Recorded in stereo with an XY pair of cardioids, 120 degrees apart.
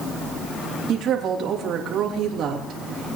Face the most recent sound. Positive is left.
turn(degrees=-60)